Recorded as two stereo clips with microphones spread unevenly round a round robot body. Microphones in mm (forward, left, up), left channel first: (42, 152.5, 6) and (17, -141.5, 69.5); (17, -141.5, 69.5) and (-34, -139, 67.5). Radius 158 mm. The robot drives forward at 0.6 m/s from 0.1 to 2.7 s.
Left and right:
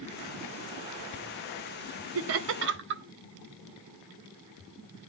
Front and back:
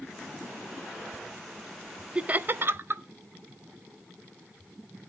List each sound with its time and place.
2.1 s laughter: 120° right, 0.5 m; by 3.0 s 150° right, 0.7 m